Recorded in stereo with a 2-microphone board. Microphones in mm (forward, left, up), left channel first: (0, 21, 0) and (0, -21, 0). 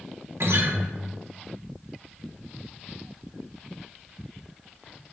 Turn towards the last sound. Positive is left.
turn(degrees=-75)  # may be behind; listen again after turning